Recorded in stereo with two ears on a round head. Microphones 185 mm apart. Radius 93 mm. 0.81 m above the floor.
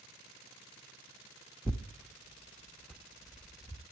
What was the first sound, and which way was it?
Tearing paper, centre (ahead or behind).